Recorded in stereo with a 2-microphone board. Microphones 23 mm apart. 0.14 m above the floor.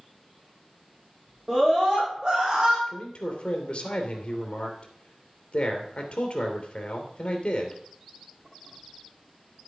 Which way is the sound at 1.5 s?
45° right (ahead or behind).